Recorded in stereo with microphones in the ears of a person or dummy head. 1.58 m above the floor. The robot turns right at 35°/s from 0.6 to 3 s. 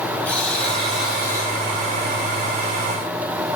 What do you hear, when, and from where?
0.2 s a buzzer: 175° left, 6 m; by 1.5 s 155° right, 6 m